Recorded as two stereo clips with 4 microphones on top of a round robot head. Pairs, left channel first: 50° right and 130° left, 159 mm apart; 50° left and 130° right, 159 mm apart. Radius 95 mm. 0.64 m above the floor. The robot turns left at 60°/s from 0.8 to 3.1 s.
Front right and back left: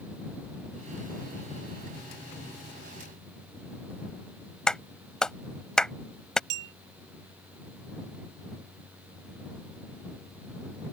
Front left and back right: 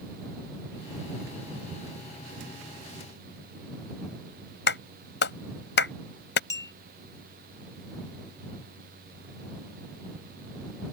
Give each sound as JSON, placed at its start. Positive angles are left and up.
{"t": 4.7, "sound": "a clap", "azimuth_deg": 35}
{"t": 6.5, "sound": "a clink", "azimuth_deg": 120}